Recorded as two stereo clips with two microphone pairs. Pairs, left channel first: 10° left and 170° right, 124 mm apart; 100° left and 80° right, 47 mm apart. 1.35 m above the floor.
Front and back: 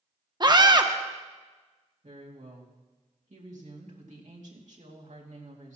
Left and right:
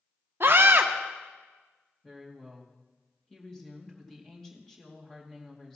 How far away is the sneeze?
I don't hear a sneeze.